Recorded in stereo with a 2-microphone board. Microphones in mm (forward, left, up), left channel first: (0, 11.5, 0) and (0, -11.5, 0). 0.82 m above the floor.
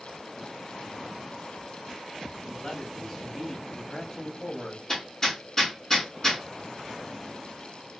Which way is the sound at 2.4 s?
5° left (ahead or behind).